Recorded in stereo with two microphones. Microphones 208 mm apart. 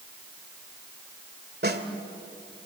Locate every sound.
1.6 s a snare drum: 50° right (ahead or behind), 1.8 m